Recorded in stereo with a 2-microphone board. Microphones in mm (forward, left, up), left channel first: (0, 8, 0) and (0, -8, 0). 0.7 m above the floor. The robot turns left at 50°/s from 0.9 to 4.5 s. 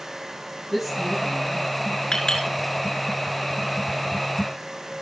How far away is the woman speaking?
About 9 m.